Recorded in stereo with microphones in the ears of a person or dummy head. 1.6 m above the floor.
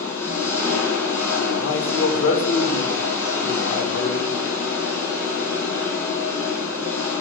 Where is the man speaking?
70° left (ahead or behind), 1.4 m.